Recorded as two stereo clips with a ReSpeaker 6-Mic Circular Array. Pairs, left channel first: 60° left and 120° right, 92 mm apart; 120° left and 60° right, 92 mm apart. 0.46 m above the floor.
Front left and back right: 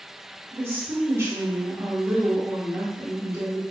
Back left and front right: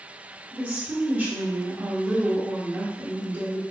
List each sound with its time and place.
0.5 s a woman speaking: 110° right, 1.2 m